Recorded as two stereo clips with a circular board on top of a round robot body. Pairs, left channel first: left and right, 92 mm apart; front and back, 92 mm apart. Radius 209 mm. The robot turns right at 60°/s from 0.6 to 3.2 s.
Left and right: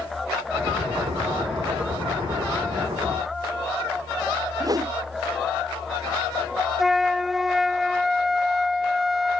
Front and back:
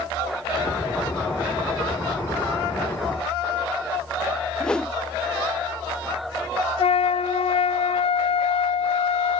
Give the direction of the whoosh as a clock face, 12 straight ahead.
3 o'clock.